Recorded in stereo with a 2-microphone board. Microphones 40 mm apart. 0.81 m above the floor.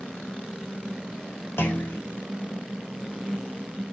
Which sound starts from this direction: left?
A clunk, at 1.6 s.